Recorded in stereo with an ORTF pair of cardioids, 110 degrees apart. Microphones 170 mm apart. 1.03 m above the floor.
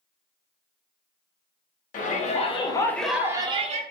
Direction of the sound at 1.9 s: 50° left.